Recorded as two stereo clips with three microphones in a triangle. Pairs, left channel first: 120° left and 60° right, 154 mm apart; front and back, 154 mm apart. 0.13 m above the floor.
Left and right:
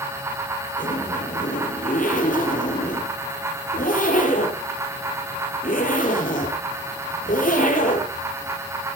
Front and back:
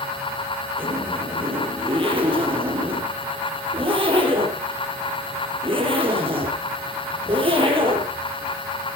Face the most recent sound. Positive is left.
turn(degrees=130)